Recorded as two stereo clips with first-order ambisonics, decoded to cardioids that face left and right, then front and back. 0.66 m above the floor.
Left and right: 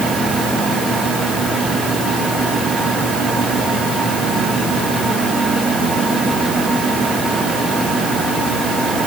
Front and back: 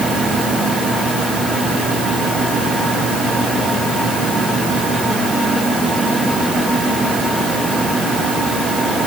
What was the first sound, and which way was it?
Only background noise.